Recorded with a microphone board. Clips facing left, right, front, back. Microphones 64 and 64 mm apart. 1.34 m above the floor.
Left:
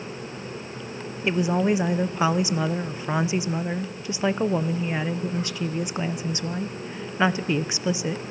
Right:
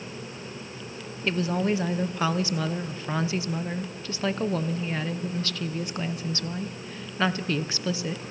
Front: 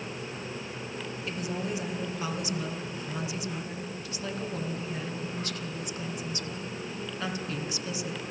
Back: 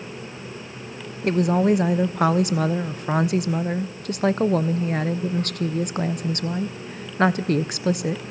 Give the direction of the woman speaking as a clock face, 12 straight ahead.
7 o'clock.